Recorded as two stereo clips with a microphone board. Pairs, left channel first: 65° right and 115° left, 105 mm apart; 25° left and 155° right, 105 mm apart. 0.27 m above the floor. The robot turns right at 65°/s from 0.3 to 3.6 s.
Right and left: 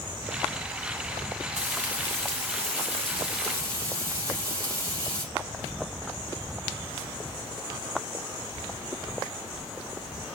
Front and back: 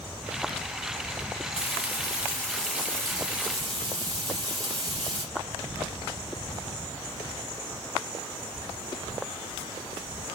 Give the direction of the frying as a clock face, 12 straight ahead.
11 o'clock.